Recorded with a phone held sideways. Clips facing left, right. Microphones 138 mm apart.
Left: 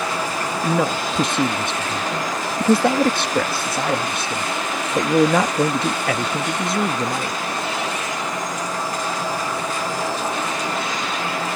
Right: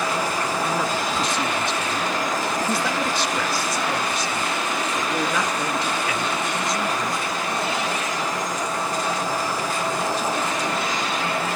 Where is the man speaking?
60° left (ahead or behind).